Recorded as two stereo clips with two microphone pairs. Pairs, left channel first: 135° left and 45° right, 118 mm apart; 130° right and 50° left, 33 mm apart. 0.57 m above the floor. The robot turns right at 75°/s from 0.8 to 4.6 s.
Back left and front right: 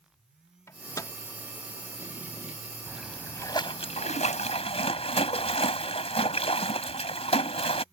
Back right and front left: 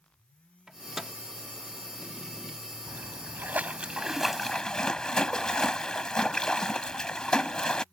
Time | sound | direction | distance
0.7 | a microwave | 105° left | ?
2.9 | a splash | 35° left | ?